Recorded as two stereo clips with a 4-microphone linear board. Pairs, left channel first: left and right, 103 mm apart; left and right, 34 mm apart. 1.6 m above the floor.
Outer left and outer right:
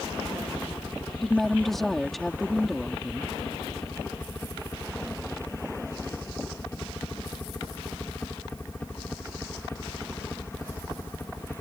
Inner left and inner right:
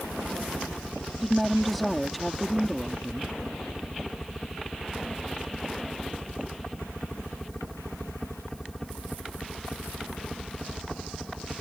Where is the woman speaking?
Centre (ahead or behind).